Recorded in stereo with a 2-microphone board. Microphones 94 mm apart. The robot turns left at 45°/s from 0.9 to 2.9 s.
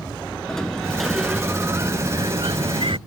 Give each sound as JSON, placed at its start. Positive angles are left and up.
{"t": 0.5, "sound": "a sliding door", "azimuth_deg": 5}